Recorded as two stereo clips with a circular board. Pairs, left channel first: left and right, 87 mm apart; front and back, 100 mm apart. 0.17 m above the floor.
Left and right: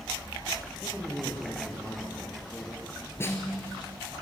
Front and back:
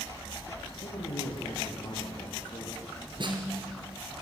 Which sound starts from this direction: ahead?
A man speaking, at 0.8 s.